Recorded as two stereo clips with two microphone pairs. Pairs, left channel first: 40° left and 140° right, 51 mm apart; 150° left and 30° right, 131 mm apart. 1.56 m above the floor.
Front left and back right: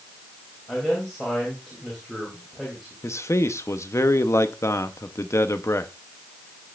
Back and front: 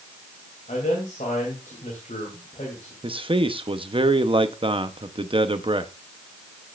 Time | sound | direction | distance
0.7 | a man speaking | 125° left | 3 m
3.0 | a man speaking | 20° left | 0.9 m